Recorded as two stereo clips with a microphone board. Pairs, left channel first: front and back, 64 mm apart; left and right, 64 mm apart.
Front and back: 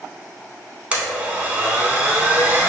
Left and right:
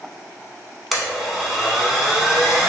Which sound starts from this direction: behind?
A blender, at 0.9 s.